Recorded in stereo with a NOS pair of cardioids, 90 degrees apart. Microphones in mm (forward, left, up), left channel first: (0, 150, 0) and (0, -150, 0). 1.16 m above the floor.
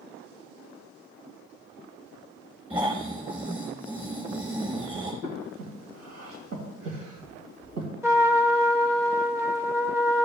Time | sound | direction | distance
2.7 | snoring | 15° right | 5 m
5.2 | breathing | 70° right | 2.5 m
8.0 | a trumpet | 10° right | 0.8 m